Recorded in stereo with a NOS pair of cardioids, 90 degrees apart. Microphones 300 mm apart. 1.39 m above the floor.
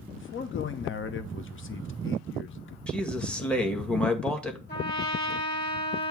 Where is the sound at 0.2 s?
40° left, 1.0 m.